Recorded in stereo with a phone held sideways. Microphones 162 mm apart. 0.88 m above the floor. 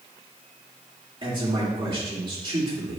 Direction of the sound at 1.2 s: 35° right (ahead or behind).